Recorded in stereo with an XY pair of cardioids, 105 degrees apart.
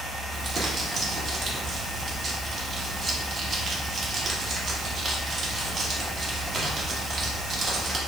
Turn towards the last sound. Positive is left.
turn(degrees=-45)